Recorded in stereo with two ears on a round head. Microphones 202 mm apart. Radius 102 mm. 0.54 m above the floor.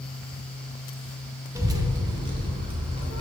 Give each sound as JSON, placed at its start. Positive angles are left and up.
{"t": 1.6, "sound": "a child speaking", "side_deg": -15, "distance_m": 0.5}